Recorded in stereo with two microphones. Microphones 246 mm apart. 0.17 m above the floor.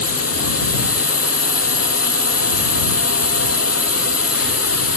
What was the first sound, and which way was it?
A drone, 75° left (ahead or behind).